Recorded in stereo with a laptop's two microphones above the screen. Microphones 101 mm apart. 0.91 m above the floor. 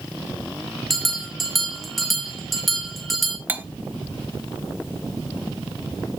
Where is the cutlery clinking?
20° right (ahead or behind), 1.0 m.